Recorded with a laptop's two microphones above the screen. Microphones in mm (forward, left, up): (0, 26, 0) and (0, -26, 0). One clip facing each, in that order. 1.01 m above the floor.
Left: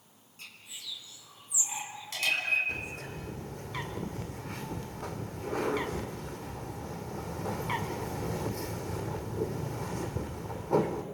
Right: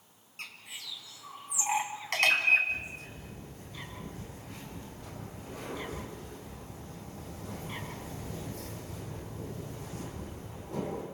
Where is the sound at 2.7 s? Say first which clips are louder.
Even; 75° left (ahead or behind), 2 m.